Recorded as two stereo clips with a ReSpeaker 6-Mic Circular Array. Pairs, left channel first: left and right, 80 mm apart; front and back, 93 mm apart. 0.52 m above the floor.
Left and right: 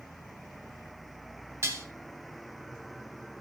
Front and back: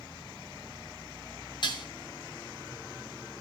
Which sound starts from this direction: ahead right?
Dishes clattering, at 1.6 s.